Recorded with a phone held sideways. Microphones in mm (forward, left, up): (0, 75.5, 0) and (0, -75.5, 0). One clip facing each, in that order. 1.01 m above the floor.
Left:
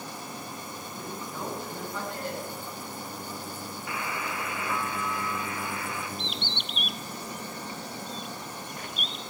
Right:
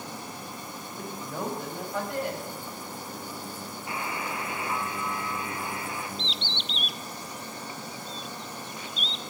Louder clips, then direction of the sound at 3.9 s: Right 1 dB; 30° right (ahead or behind).